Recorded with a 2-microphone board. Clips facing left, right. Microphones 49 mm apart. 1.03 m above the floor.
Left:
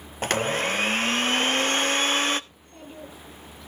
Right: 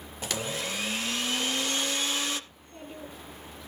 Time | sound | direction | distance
0.2 | a blender | 50° left (ahead or behind) | 0.5 m
2.5 | a child speaking | 5° right (ahead or behind) | 8.5 m